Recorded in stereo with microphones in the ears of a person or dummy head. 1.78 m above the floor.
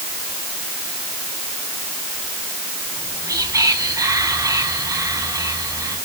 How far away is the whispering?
About 2 m.